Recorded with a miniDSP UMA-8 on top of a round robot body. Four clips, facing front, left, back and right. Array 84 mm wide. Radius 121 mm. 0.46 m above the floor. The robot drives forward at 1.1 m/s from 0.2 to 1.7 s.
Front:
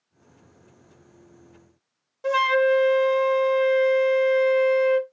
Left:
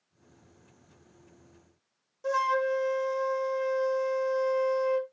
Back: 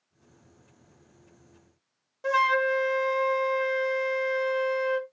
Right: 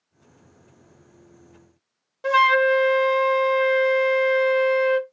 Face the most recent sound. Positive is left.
turn(degrees=-95)